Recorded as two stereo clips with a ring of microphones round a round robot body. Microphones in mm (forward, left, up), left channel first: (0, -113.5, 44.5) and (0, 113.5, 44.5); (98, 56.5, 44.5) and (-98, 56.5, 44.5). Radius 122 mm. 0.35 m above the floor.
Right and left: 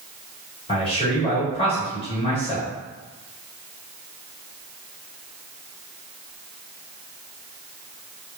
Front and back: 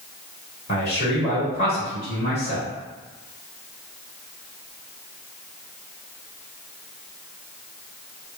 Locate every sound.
0.7 s a man speaking: 35° right, 1.9 m